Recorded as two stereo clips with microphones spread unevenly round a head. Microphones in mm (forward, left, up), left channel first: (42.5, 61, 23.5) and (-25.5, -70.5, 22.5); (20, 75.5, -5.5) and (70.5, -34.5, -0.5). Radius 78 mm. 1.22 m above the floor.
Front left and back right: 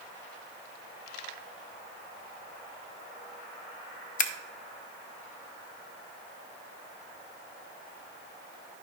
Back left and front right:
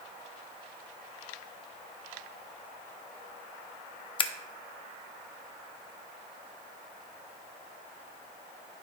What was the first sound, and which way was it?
Scissors, 80° left.